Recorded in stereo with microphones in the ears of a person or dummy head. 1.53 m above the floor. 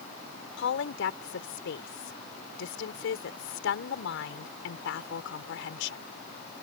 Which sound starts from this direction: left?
A woman speaking, at 0.6 s.